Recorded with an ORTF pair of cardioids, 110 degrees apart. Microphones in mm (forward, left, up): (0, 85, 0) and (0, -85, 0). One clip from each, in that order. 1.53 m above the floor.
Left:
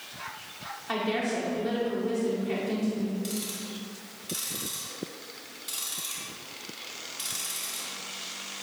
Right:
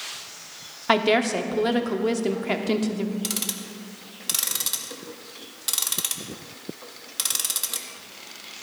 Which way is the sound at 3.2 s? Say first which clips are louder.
Right 5 dB; 65° right.